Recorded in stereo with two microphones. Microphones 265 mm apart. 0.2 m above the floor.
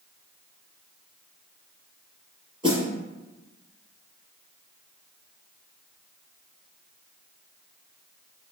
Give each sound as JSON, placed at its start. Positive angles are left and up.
{"t": 2.6, "sound": "a snare drum", "side_deg": -20, "distance_m": 1.0}